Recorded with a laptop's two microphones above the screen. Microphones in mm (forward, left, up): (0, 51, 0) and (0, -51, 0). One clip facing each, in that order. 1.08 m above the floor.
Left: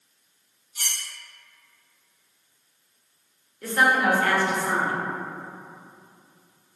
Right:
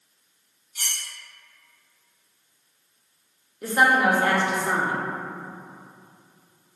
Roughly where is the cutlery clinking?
Right.